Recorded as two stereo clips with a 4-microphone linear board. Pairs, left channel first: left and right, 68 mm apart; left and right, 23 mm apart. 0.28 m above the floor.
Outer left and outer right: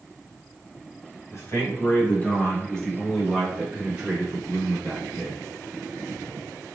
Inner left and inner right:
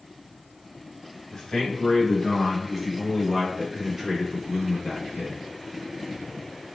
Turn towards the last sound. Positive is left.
turn(degrees=-45)  # may be behind; listen again after turning